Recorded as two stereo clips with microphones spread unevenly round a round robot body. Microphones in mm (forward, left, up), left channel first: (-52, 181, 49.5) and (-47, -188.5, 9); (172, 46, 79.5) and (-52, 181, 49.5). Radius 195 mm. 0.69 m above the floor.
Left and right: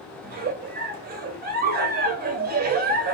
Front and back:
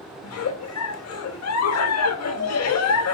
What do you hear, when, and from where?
0.2 s a giggle: 35° right, 0.6 m